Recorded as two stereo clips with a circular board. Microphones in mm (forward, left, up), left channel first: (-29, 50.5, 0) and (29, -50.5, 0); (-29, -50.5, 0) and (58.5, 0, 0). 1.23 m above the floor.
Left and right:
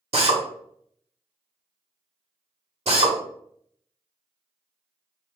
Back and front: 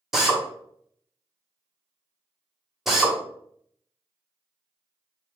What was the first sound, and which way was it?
A drill, 55° right.